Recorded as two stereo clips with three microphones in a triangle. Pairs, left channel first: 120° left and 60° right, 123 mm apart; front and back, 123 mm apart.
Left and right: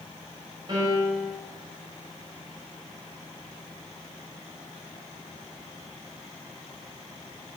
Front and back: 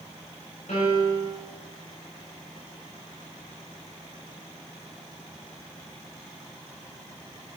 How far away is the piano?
About 7 m.